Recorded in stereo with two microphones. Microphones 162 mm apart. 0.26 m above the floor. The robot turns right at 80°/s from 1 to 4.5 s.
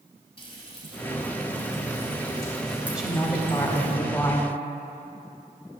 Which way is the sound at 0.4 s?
35° left (ahead or behind).